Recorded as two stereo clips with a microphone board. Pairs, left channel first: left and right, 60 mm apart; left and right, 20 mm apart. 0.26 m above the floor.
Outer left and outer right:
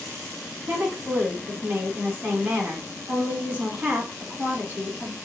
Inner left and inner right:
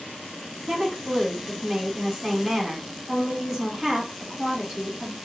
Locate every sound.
0.7 s a woman speaking: 30° right (ahead or behind), 1.8 m